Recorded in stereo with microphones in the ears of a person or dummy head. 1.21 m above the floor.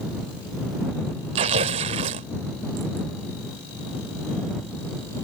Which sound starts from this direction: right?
Tearing paper, at 1.4 s.